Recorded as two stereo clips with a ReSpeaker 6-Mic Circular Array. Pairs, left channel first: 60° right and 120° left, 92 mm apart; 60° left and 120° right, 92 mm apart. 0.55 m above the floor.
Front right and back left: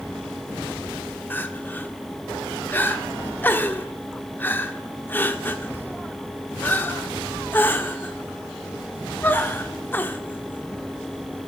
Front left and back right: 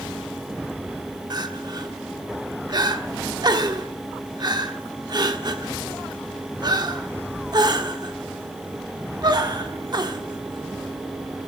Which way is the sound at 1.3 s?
120° right.